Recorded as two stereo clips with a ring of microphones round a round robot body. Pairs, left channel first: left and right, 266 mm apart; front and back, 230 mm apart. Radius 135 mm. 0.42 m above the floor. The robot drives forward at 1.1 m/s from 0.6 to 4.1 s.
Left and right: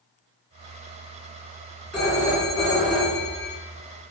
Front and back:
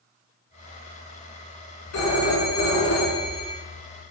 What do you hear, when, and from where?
1.9 s a phone ringing: 5° left, 4 m